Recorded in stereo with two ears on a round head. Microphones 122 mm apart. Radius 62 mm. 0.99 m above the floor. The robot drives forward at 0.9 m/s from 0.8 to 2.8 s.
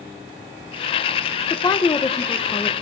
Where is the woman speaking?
25° left (ahead or behind), 0.5 m; by 2.7 s 10° left (ahead or behind), 1.1 m.